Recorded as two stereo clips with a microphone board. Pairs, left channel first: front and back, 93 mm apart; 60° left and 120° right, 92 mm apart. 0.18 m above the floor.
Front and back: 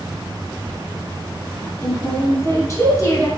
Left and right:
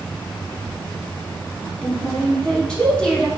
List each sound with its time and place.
1.6 s a woman speaking: 15° right, 1.4 m